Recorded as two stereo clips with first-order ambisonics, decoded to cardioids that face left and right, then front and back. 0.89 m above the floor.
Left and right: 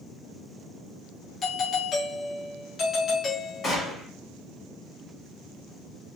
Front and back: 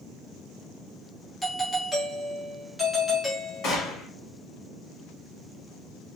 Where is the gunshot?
30° left, 1.1 m.